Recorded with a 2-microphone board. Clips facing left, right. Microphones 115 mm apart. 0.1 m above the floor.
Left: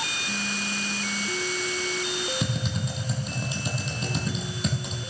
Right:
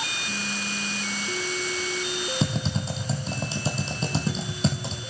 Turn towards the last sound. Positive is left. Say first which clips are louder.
# right 2 dB
turn(degrees=-30)  # may be behind; listen again after turning